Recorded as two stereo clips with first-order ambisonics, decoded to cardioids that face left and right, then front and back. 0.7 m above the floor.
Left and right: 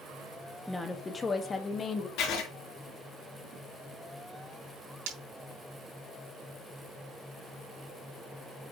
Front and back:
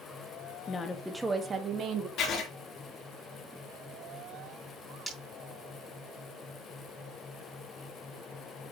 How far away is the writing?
About 2.5 m.